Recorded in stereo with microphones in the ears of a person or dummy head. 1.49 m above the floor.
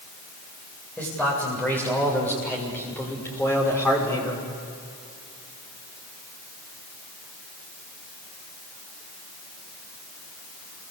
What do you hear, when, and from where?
1.0 s a man speaking: 5° left (ahead or behind), 8 m; by 4.5 s 15° left (ahead or behind), 5.5 m